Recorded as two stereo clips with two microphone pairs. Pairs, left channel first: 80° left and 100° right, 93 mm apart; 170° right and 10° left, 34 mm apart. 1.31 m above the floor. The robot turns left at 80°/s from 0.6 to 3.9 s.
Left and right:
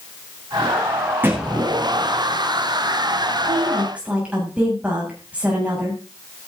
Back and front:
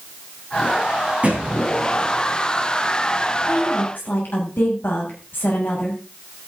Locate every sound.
1.2 s a thud: 30° right, 6.5 m; by 1.5 s 55° right, 6.5 m
3.5 s a woman speaking: 140° right, 7.5 m; by 6.0 s 175° right, 7.5 m